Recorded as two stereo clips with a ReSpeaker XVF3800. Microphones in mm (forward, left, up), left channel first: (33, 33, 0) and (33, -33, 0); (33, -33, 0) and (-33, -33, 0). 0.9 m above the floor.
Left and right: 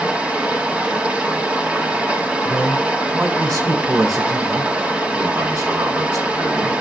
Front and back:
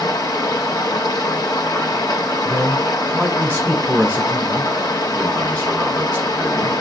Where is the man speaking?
70° right, 6 m.